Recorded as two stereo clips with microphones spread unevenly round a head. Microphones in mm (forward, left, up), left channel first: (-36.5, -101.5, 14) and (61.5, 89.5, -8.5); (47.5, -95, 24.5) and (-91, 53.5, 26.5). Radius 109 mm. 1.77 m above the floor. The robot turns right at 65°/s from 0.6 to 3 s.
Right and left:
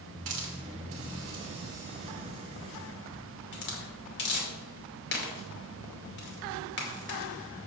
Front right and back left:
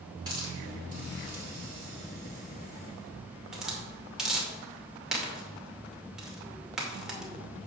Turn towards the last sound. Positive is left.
turn(degrees=-140)